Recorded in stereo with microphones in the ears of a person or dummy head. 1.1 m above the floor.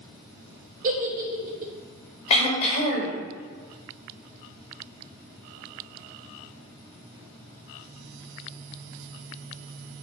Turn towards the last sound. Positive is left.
turn(degrees=35)  # may be behind; listen again after turning